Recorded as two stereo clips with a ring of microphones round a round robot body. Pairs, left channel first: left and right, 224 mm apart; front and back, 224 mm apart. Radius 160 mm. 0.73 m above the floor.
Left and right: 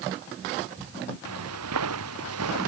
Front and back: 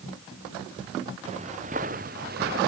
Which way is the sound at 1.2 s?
110° right.